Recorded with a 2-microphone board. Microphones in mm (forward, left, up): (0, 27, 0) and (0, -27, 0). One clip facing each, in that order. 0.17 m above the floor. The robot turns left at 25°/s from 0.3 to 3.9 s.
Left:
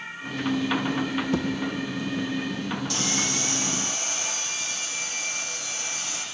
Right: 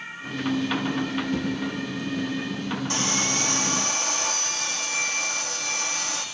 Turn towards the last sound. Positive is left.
turn(degrees=-55)  # may be behind; listen again after turning